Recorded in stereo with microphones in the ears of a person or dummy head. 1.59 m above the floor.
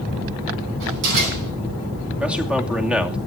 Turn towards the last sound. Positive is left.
turn(degrees=-5)  # may be behind; listen again after turning